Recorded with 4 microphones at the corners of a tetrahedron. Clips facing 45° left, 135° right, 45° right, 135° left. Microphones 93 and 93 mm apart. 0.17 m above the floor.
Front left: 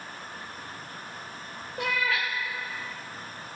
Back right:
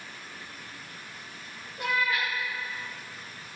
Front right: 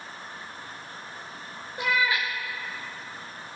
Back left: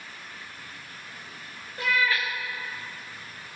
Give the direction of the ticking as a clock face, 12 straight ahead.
I don't hear ticking.